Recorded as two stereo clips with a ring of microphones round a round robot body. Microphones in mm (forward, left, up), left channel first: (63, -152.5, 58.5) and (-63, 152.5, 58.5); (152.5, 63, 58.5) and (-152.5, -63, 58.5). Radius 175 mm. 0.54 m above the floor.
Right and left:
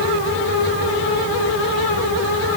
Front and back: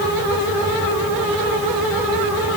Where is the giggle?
I don't hear a giggle.